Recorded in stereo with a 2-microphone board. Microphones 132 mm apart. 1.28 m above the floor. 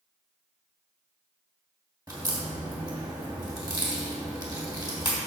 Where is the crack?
30° right (ahead or behind), 2.5 m.